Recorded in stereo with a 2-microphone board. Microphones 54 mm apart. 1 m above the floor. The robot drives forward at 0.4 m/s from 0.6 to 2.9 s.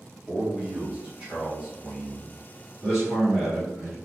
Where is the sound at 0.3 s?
10° right (ahead or behind), 1.4 m; by 2.4 s 20° right (ahead or behind), 0.9 m.